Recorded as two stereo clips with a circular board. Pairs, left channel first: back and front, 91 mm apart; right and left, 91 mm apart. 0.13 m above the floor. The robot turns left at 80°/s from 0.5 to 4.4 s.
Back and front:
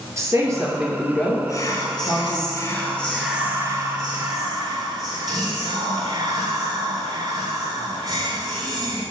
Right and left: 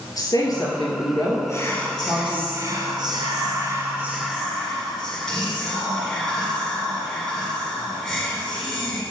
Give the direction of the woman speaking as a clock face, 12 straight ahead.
2 o'clock.